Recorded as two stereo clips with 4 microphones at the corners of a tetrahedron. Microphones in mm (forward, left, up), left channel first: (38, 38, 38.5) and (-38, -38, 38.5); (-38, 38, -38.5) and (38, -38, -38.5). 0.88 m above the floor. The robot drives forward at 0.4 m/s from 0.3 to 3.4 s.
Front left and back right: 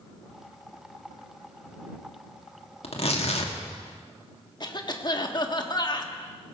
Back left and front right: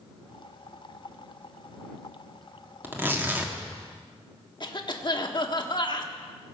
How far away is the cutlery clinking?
No cutlery clinking in this recording.